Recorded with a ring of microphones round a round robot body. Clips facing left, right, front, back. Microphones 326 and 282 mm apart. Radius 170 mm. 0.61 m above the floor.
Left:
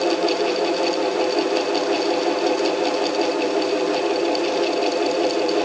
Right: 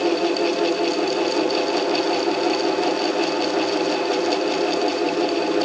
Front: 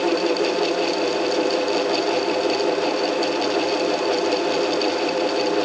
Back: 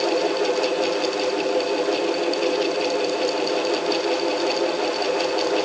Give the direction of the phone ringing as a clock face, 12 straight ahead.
I don't hear a phone ringing.